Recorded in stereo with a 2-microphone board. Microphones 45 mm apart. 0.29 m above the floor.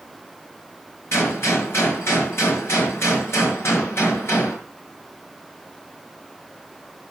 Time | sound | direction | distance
1.1 | a gunshot | 75° left (ahead or behind) | 5.5 m